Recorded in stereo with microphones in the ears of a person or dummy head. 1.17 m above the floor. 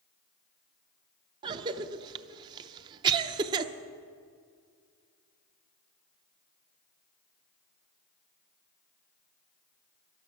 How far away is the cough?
About 0.7 m.